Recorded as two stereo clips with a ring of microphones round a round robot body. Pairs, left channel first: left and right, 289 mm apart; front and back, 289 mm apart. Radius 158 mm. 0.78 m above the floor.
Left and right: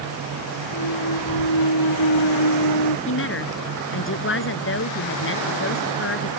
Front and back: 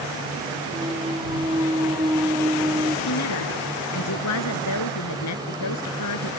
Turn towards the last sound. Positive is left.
turn(degrees=45)